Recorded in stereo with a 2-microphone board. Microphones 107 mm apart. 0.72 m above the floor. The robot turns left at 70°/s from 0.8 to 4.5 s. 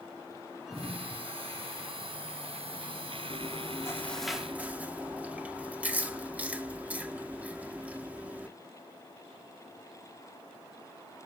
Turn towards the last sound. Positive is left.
turn(degrees=-15)